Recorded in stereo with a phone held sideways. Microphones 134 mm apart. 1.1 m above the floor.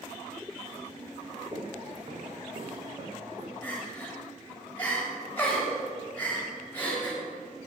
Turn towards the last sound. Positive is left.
turn(degrees=10)  # may be behind; listen again after turning